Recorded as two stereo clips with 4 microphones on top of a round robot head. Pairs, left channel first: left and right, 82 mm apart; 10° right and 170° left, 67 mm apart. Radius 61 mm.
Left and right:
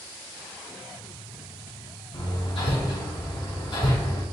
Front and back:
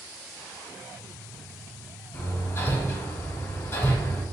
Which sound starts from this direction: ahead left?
Hammering, at 2.1 s.